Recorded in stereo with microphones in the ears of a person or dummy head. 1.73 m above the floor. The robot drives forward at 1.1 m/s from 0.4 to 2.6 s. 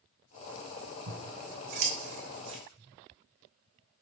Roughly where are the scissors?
Right.